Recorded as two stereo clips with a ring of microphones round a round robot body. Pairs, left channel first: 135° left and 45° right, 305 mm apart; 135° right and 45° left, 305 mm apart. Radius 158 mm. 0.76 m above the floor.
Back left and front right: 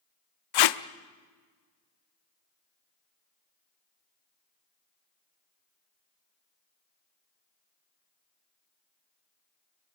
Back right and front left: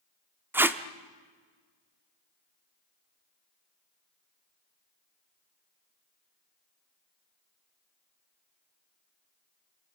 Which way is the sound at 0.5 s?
130° left.